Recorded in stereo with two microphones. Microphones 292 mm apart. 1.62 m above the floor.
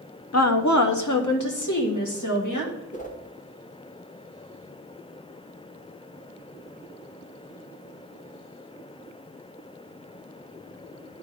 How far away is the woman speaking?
About 0.6 m.